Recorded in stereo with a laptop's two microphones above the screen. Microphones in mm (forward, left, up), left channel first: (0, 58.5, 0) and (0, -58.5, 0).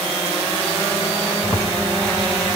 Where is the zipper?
15° left (ahead or behind), 2.5 m.